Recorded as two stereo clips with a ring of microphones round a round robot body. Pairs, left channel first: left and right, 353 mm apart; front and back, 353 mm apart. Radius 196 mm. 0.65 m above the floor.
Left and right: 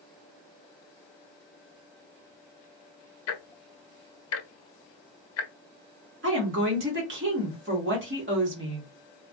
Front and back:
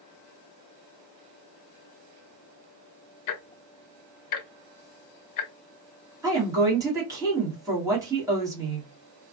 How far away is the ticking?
About 0.5 m.